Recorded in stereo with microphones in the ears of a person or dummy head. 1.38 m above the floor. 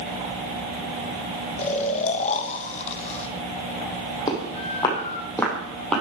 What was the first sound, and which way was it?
Snoring, 35° left (ahead or behind).